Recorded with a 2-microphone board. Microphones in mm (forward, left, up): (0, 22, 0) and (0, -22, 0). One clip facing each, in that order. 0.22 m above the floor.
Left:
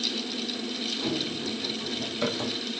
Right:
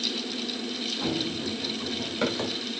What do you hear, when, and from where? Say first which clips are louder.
1.0 s running footsteps: right 2 dB; 65° right (ahead or behind), 6 m; by 2.6 s 50° right (ahead or behind), 6.5 m